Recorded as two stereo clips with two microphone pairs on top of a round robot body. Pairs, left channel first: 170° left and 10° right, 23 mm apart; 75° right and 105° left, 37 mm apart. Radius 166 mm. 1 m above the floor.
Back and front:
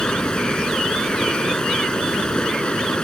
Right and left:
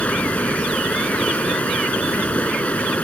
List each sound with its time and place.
0.0 s running water: 135° right